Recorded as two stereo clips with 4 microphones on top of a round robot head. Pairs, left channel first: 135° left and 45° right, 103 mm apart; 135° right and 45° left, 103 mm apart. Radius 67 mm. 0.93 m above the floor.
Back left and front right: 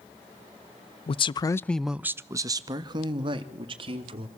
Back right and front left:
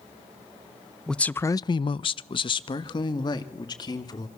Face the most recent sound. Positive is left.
turn(degrees=-85)